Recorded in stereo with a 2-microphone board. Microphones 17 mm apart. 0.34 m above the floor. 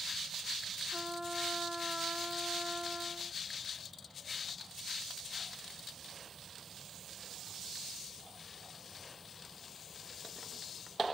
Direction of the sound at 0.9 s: 35° right (ahead or behind).